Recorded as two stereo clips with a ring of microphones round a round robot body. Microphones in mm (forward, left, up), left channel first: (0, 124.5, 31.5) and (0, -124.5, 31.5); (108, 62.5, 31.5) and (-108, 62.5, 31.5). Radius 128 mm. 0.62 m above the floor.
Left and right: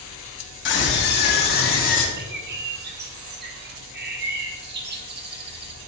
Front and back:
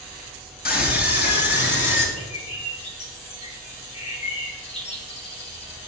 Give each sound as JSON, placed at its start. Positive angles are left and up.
{"t": 0.7, "sound": "a scream", "azimuth_deg": 45, "distance_m": 3.5}
{"t": 2.2, "sound": "a bird", "azimuth_deg": -55, "distance_m": 1.4}